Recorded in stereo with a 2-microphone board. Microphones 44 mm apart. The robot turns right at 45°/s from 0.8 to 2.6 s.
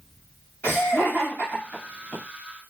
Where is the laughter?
45° left (ahead or behind), 1.5 m; by 2.1 s 15° right (ahead or behind), 1.5 m.